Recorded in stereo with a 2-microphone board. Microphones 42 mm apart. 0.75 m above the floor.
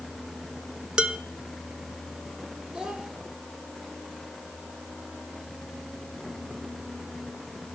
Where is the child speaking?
20° right (ahead or behind), 2.5 m.